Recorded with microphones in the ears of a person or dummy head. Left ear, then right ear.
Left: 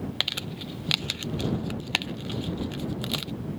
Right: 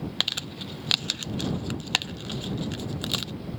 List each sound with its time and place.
0.2 s crumpling: 15° right (ahead or behind)